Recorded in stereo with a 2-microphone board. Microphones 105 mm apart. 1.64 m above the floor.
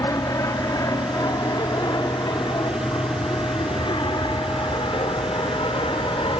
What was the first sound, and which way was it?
An aircraft, 30° left (ahead or behind).